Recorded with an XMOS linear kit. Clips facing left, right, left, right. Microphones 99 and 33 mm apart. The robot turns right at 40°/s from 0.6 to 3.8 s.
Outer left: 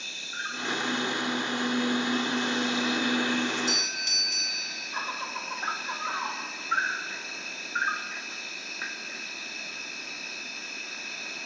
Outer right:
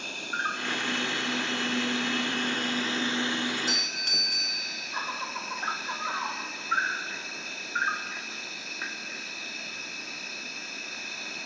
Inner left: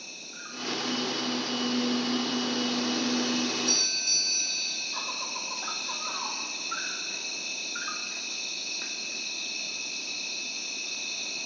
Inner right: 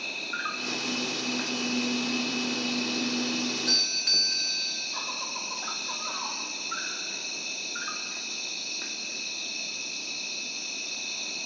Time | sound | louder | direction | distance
0.0 | an insect | outer right 6 dB, inner right 11 dB | 130° right | 1.3 m
3.5 | a doorbell | outer left 2 dB, inner right 1 dB | 40° right (ahead or behind) | 1.9 m